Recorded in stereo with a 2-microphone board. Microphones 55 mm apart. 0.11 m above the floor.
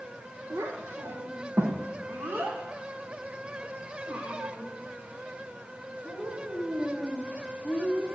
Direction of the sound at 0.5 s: 60° right (ahead or behind).